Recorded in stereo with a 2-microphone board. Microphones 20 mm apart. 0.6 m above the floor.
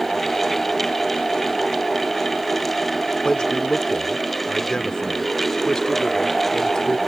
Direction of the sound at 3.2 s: 35° left (ahead or behind).